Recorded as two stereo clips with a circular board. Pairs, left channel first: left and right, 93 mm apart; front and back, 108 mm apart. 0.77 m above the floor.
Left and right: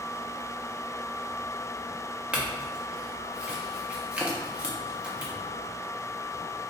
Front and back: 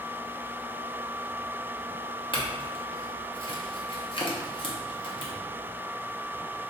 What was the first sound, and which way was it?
A clink, 15° right.